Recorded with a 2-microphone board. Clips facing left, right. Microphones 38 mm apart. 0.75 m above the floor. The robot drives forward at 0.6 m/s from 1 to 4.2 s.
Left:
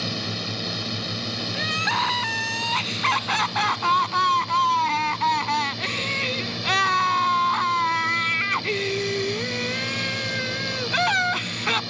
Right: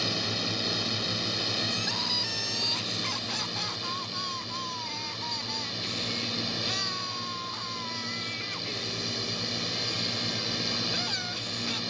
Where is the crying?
45° left (ahead or behind); by 11.8 s 55° left (ahead or behind).